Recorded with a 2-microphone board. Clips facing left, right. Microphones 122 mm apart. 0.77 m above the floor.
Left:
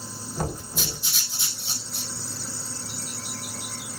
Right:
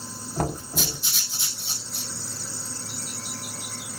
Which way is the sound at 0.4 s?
65° right (ahead or behind).